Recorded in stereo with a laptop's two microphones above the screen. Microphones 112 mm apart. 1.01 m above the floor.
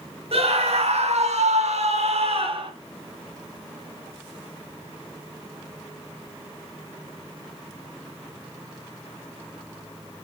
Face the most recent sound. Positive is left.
turn(degrees=-50)  # may be behind; listen again after turning